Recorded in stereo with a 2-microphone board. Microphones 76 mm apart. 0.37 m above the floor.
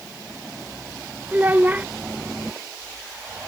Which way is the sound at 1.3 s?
20° right (ahead or behind).